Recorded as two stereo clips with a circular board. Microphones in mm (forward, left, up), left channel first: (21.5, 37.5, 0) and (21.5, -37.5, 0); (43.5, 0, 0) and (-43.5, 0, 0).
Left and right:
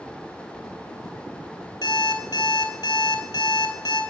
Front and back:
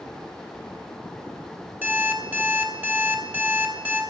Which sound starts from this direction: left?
An alarm clock, at 1.8 s.